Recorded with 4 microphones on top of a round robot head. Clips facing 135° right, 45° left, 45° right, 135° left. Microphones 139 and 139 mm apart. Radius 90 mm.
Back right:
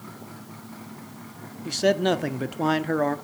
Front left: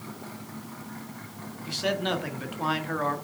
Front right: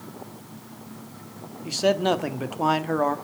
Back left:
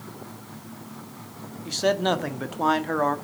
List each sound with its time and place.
1.6 s a man speaking: 125° right, 1.3 m